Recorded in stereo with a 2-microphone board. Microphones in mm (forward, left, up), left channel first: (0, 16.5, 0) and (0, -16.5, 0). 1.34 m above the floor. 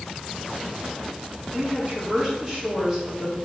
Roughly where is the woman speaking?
Right.